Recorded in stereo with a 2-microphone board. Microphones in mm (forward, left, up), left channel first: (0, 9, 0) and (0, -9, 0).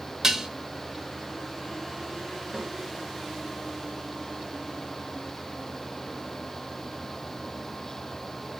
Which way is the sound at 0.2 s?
30° right (ahead or behind).